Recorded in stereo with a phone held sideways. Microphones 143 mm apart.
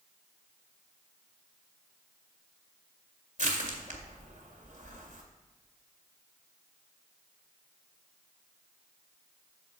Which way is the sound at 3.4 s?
55° right (ahead or behind).